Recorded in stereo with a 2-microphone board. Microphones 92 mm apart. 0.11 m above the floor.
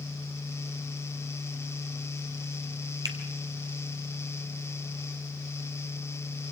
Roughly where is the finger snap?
Right.